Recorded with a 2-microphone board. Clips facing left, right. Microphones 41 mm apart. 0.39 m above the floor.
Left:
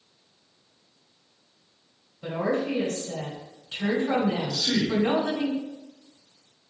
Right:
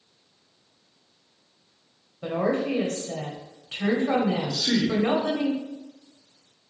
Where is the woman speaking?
40° right (ahead or behind), 1.6 m.